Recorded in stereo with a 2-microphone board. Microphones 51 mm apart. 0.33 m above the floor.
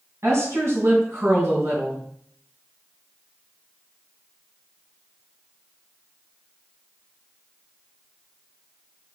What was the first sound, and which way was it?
A woman speaking, 65° right (ahead or behind).